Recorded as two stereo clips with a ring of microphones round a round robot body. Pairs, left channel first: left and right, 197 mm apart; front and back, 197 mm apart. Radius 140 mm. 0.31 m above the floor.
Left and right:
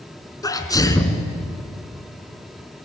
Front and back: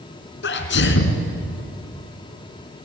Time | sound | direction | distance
0.4 | a sneeze | 20° left | 3.5 m